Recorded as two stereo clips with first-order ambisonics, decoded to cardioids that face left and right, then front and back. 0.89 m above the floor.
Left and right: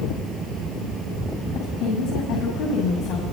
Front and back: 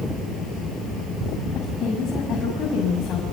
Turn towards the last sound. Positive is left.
turn(degrees=60)